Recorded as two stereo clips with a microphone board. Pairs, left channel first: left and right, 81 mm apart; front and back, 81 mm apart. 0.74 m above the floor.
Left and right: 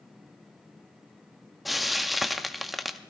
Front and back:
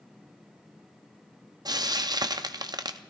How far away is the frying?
About 0.6 m.